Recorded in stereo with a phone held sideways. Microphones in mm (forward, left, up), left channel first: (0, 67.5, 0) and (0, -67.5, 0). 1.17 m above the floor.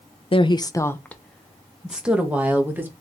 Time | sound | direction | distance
0.3 | a woman speaking | 45° left (ahead or behind) | 0.6 m